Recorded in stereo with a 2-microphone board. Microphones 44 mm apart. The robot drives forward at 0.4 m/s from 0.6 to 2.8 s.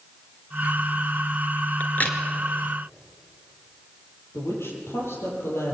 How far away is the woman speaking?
About 8.5 m.